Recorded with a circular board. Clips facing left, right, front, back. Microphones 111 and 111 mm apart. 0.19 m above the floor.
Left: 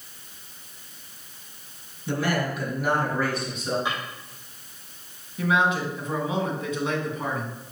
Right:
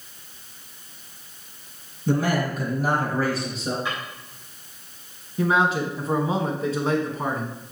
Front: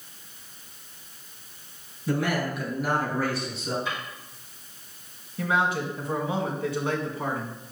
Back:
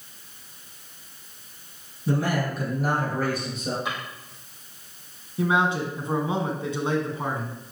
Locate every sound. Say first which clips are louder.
2.1 s a man speaking: right 3 dB, back 1 dB; 130° right, 3.5 m; by 3.8 s 145° right, 4.5 m
3.9 s a drawer: left 1 dB, back 1 dB; 160° left, 4.5 m
5.4 s a man speaking: right 2 dB, back 2 dB; 125° right, 1.8 m